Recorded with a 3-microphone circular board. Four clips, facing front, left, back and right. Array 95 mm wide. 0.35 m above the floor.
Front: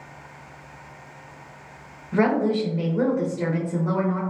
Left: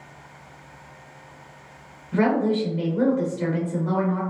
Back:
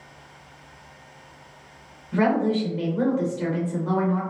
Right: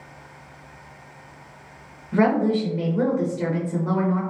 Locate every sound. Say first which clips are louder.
2.1 s a woman speaking: right 1 dB, front 1 dB; 30° right, 0.8 m